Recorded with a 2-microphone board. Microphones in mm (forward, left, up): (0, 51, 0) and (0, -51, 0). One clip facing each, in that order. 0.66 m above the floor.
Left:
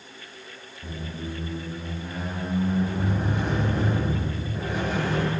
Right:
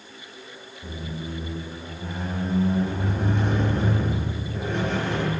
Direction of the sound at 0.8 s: 5° left (ahead or behind).